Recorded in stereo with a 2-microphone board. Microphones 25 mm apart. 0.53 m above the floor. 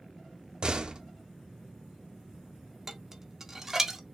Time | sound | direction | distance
0.6 | a door slam | 40° right (ahead or behind) | 0.5 m
2.9 | dishes clattering | 20° right (ahead or behind) | 0.6 m